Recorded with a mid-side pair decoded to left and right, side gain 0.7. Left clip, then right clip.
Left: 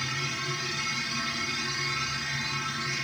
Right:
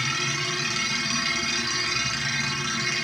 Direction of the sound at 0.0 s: 60° right.